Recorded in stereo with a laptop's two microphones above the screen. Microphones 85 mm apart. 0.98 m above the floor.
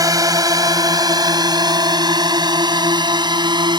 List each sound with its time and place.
0.0 s a drone: 45° right (ahead or behind); by 3.8 s 60° right (ahead or behind)